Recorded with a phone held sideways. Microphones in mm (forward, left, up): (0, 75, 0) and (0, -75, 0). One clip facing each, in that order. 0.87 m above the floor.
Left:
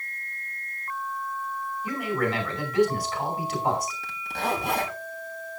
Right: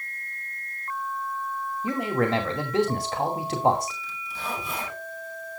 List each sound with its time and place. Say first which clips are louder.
1.8 s a man speaking: right 3 dB; 45° right (ahead or behind), 2.5 m
4.0 s a zipper: left 6 dB; 60° left (ahead or behind), 3 m